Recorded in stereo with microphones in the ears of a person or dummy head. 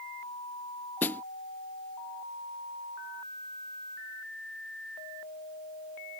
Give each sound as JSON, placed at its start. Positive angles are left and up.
{"t": 1.0, "sound": "a snare drum", "side_deg": 15}